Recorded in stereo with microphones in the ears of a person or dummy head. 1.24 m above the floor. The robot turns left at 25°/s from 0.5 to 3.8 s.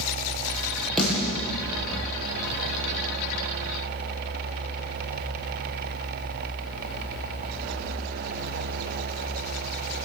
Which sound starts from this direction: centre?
A snare drum, at 1.0 s.